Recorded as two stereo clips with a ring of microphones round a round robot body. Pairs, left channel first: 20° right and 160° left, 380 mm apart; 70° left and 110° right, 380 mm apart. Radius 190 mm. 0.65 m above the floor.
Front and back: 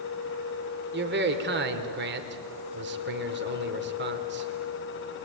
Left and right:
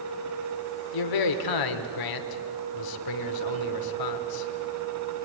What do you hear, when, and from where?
0.9 s a man speaking: 95° left, 2.5 m